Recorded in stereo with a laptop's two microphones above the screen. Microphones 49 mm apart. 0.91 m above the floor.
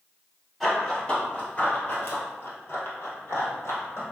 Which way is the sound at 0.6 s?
5° left (ahead or behind).